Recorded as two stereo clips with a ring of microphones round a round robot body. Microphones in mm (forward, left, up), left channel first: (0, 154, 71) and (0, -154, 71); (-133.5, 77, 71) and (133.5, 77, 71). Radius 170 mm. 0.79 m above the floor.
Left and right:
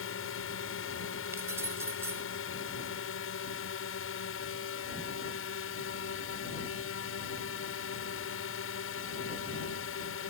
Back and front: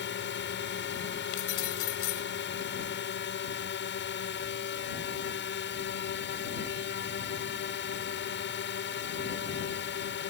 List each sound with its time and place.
0.0 s a drone: 135° left
1.3 s keys jangling: 175° right